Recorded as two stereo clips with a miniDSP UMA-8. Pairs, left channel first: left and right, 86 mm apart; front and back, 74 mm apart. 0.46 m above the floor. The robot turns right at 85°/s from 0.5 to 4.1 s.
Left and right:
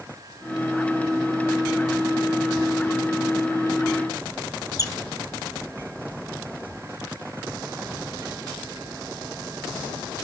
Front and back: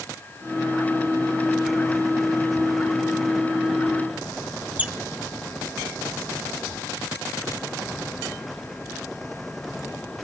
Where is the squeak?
115° left, 0.6 m.